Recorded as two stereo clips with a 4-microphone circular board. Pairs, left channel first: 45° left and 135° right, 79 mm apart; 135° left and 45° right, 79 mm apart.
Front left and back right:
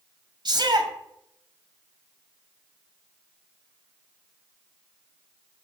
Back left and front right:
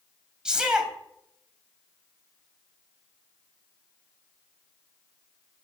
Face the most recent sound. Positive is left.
turn(degrees=-125)